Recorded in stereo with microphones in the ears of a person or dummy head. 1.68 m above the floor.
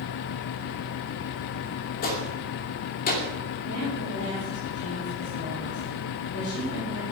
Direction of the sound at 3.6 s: 75° left (ahead or behind).